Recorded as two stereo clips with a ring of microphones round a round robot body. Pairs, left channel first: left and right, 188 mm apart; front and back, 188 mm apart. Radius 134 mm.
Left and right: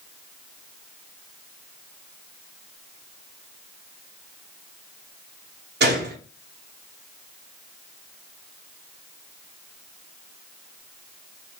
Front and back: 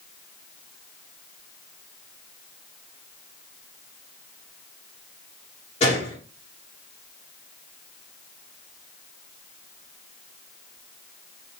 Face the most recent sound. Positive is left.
turn(degrees=-65)